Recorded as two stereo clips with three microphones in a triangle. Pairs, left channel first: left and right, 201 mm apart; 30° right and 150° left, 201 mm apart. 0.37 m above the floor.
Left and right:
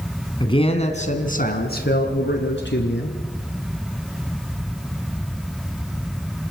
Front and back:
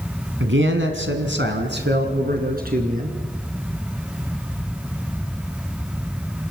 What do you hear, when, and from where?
0.4 s a man speaking: 155° left, 3 m; by 3.2 s 105° left, 4.5 m